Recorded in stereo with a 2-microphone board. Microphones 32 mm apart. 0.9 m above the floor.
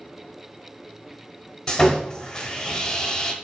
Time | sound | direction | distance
1.7 | sawing | 15° left (ahead or behind) | 1.1 m